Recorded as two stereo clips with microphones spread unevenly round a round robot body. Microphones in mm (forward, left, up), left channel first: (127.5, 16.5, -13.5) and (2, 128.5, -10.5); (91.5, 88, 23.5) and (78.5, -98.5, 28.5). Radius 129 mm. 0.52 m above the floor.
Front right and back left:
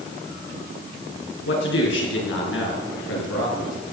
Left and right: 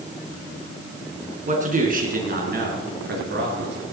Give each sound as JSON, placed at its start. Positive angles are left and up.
{"t": 1.5, "sound": "a man speaking", "azimuth_deg": -45, "distance_m": 5.5}